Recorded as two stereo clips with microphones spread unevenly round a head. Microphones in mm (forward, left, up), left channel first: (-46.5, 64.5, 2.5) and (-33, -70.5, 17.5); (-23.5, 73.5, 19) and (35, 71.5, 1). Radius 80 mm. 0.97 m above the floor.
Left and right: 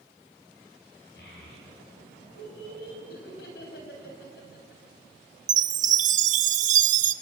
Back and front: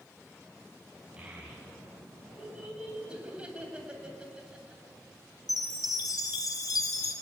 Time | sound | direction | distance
1.2 | a child speaking | 70° left | 6.5 m
3.1 | laughter | 70° left | 7 m
5.5 | a chime | 115° right | 1.0 m